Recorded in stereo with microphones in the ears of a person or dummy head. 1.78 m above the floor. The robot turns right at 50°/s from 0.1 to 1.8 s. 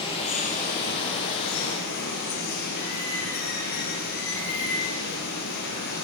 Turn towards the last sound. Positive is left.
turn(degrees=115)